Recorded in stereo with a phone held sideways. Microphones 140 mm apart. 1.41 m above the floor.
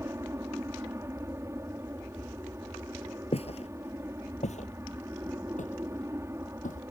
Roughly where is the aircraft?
Centre.